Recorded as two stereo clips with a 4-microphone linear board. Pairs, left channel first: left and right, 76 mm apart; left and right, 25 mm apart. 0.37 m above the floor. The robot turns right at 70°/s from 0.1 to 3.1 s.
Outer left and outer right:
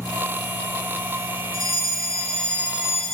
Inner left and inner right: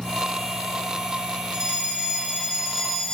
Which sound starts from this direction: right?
A fire alarm, at 1.5 s.